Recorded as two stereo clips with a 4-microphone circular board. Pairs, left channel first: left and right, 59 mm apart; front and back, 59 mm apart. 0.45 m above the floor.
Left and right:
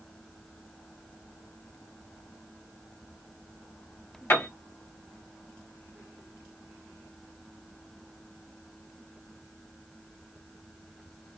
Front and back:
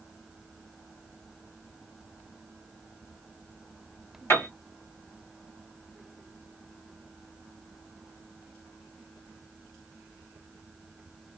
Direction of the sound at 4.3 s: 45° left.